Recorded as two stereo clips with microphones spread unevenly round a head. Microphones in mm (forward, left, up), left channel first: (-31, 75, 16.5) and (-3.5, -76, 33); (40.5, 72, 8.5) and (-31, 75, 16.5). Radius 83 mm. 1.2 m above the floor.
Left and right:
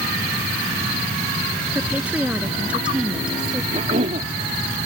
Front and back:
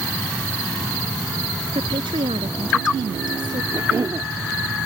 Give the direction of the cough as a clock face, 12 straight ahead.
4 o'clock.